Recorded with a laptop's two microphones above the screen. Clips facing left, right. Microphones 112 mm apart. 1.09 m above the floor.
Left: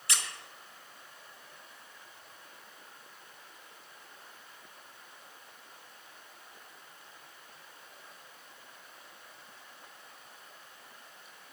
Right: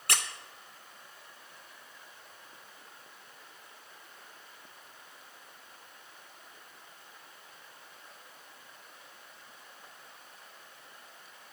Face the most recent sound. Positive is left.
turn(degrees=-55)  # may be behind; listen again after turning